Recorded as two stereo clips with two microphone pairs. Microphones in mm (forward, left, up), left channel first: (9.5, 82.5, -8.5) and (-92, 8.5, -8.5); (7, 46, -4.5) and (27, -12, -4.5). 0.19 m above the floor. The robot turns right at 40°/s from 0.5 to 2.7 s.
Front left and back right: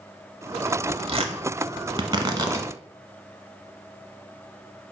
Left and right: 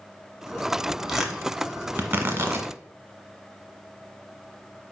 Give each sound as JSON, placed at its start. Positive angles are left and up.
{"t": 1.1, "sound": "tearing paper", "azimuth_deg": -150, "distance_m": 0.7}